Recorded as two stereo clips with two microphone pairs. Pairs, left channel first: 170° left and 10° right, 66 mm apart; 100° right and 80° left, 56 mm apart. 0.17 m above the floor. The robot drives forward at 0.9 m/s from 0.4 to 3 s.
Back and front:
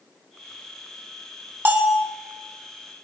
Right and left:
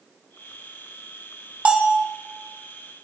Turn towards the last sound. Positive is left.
turn(degrees=150)